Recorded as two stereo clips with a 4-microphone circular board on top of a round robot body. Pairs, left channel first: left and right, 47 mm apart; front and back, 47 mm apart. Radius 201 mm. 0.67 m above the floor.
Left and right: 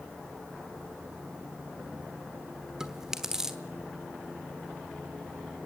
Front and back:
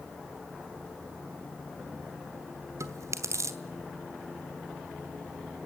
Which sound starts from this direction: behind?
Chewing, at 2.8 s.